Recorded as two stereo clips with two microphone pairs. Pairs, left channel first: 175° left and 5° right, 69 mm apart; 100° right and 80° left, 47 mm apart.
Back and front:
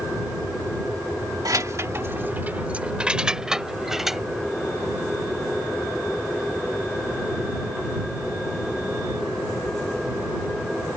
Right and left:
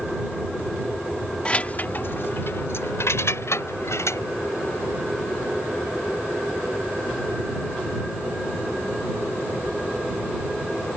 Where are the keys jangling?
35° right; by 4.2 s 95° right.